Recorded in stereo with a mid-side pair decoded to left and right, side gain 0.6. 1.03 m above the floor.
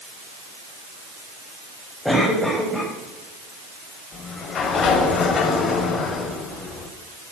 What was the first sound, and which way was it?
A cough, 5° left.